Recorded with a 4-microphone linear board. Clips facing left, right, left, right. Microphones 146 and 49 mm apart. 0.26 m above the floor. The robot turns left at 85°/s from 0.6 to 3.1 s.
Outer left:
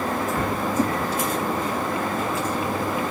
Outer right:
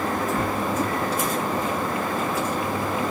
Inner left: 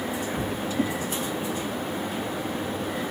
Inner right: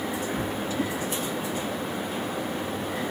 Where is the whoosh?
30° left (ahead or behind), 5.5 m; by 0.9 s 20° left (ahead or behind), 5.5 m.